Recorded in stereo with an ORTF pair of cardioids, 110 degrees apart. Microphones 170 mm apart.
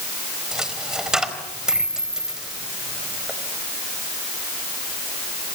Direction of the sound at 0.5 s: 5° right.